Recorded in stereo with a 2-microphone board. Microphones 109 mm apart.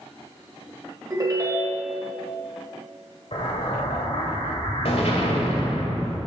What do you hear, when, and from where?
1.1 s a ringtone: 35° right (ahead or behind), 2 m
3.3 s an explosion: 65° left (ahead or behind), 1.5 m